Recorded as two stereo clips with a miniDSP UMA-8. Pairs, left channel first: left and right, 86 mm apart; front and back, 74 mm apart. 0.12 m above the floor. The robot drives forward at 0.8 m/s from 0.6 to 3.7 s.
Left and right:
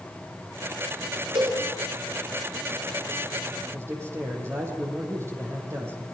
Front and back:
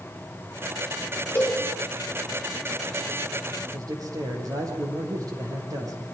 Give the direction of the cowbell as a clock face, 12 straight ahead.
2 o'clock.